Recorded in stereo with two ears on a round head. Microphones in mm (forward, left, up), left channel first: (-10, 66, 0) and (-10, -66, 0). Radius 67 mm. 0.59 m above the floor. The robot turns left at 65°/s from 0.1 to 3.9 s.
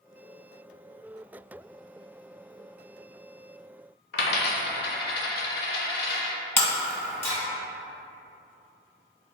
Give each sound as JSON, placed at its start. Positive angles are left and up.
{"t": 4.1, "sound": "a dropped coin", "side_deg": 70, "distance_m": 0.7}
{"t": 6.6, "sound": "breaking glass", "side_deg": 15, "distance_m": 1.8}